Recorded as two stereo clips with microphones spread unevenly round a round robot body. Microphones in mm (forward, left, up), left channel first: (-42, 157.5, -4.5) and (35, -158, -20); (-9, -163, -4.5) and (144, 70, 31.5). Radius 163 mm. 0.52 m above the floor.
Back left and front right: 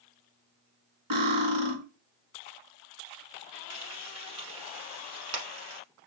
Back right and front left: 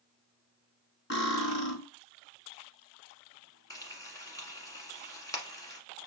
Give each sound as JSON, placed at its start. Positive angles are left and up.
{"t": 1.1, "sound": "cutlery clinking", "azimuth_deg": -75, "distance_m": 1.4}
{"t": 3.7, "sound": "frying", "azimuth_deg": -45, "distance_m": 1.2}